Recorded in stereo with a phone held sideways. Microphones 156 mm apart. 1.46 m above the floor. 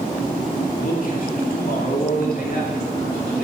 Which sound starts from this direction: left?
A man speaking, at 0.7 s.